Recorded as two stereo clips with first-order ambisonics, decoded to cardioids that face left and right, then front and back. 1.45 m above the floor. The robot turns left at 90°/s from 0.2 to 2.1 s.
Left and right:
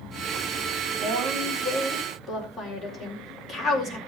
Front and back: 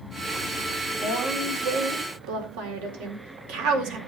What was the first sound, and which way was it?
A woman speaking, 85° right.